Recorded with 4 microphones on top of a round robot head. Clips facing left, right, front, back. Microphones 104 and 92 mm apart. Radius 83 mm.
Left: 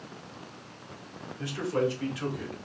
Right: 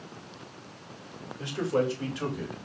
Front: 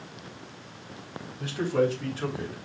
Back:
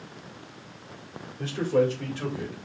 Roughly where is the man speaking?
Behind.